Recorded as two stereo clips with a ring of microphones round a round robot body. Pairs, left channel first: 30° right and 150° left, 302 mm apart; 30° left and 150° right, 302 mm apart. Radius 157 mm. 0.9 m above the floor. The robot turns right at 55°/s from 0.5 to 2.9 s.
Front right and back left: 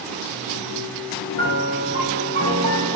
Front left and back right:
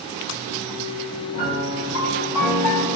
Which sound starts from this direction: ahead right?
A piano, at 1.3 s.